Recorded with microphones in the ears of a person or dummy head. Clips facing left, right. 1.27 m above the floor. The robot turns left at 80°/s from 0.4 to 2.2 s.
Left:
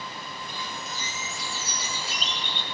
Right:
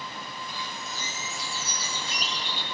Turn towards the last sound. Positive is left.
turn(degrees=0)